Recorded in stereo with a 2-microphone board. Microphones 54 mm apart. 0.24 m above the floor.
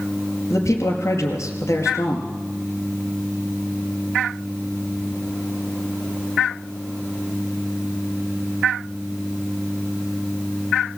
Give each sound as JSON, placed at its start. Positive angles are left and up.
{"t": 0.5, "sound": "a man speaking", "side_deg": 65, "distance_m": 4.5}